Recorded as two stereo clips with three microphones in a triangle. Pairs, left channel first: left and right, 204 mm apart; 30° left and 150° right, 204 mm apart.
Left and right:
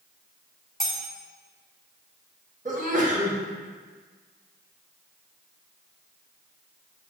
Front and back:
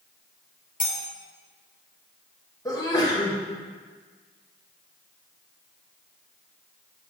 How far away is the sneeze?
About 1.5 m.